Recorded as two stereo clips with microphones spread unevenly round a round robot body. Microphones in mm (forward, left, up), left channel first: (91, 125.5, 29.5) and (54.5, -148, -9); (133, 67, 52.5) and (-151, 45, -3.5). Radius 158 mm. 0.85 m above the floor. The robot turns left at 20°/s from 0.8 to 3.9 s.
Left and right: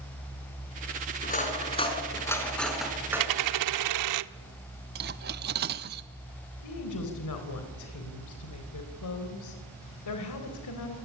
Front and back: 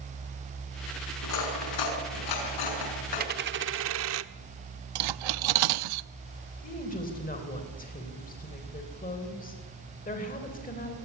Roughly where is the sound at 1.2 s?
Ahead left.